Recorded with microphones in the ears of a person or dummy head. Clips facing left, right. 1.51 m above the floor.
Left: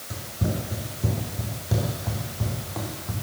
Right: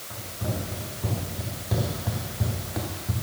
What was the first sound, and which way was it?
Running footsteps, 35° left (ahead or behind).